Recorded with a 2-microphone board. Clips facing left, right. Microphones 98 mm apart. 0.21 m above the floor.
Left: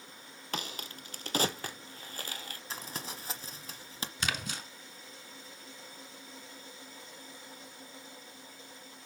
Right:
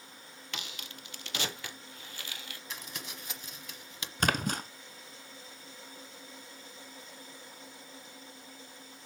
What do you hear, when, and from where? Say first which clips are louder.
0.5 s a crack: left 6 dB; 40° left (ahead or behind), 0.9 m
2.7 s crumpling: left 4 dB; 35° left (ahead or behind), 1.0 m
4.2 s a splash: right 8 dB; 50° right (ahead or behind), 0.7 m